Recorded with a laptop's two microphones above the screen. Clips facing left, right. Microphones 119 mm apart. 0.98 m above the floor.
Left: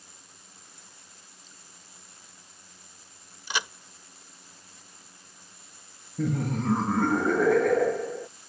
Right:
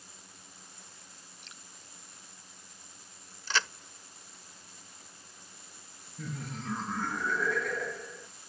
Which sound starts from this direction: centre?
A crack, at 3.5 s.